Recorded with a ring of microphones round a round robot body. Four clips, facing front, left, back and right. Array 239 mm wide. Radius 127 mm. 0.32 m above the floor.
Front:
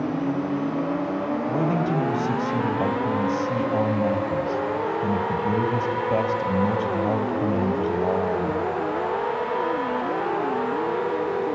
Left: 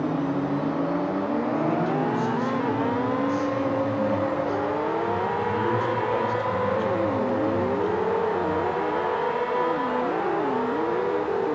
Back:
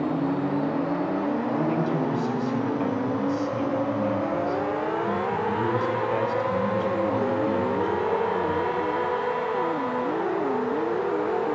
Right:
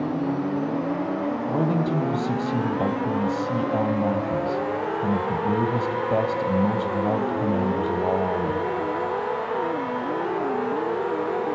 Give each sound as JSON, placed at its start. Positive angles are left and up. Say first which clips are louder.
{"t": 1.5, "sound": "a man speaking", "louder": "right 3 dB, front 1 dB", "azimuth_deg": -55, "distance_m": 2.5}